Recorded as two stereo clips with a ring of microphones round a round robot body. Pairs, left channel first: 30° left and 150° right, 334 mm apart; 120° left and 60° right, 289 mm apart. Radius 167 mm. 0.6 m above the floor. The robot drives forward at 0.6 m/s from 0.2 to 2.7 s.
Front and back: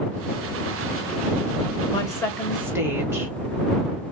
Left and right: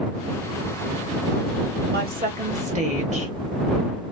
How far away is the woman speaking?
About 1.3 m.